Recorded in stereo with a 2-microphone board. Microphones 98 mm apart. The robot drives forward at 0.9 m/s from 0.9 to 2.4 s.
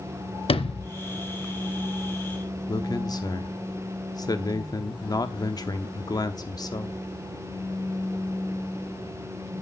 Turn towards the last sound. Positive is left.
turn(degrees=40)  # may be behind; listen again after turning